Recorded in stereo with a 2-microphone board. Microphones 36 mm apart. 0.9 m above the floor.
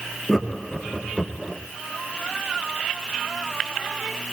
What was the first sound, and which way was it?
Laughter, 5° left (ahead or behind).